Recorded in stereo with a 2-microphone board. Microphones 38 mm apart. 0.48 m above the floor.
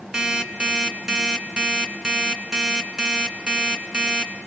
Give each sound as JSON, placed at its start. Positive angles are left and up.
{"t": 0.1, "sound": "an alarm clock", "side_deg": -25, "distance_m": 2.0}